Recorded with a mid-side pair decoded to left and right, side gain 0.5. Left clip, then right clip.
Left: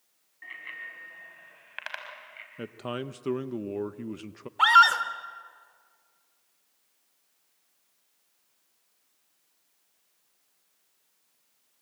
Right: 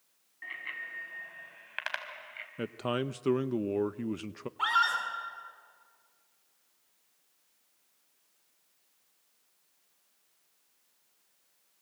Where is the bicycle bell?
10° right, 6.5 m; by 2.5 s 15° right, 4.5 m.